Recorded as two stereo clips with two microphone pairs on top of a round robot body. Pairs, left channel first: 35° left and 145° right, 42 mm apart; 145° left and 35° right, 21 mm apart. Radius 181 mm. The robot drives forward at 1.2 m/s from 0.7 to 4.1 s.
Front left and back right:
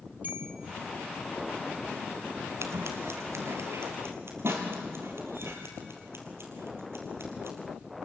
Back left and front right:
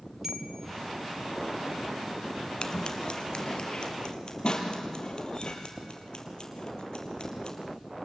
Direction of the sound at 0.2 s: 110° right.